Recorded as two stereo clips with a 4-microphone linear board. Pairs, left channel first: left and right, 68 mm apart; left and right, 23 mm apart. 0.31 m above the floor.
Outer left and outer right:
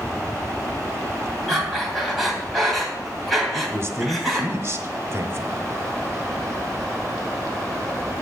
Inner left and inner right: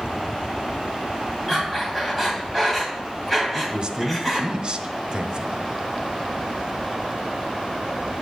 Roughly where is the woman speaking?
Right.